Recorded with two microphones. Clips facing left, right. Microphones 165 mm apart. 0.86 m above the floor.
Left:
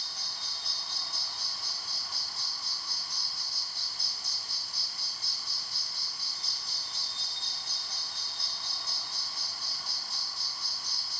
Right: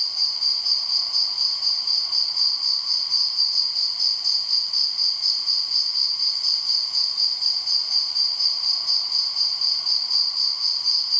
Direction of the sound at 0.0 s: 5° right (ahead or behind).